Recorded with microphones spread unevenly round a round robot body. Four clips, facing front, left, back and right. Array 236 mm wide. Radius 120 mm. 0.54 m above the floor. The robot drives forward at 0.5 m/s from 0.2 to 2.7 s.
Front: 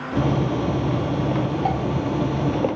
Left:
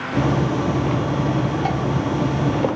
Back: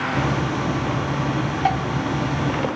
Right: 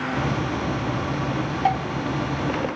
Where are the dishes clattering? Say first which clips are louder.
Right 2 dB, back 6 dB; 175° right, 3 m; by 1.8 s straight behind, 3 m.